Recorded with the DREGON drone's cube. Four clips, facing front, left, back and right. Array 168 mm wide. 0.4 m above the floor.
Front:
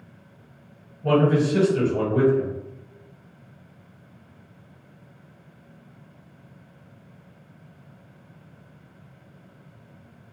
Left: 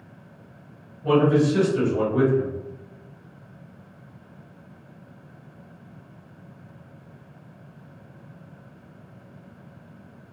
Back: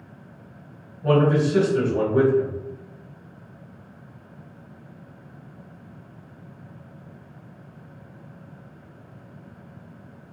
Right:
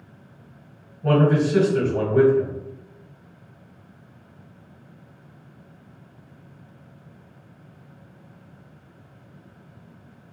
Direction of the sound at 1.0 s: 110° right.